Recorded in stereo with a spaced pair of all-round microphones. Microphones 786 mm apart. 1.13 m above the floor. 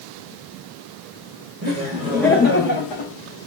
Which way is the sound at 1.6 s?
25° right (ahead or behind).